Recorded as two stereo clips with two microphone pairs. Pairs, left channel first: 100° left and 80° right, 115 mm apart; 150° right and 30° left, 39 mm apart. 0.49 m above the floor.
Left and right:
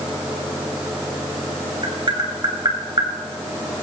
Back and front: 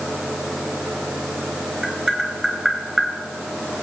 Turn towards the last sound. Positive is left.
turn(degrees=-40)